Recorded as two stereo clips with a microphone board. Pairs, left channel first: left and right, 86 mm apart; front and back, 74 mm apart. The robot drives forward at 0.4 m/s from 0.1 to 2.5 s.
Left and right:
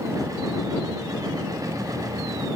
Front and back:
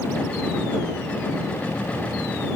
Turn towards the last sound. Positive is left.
No sound to turn to.